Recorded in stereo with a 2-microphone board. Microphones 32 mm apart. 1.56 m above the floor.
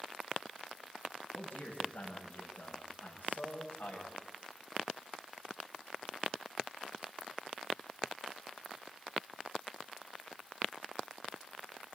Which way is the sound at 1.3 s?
80° left.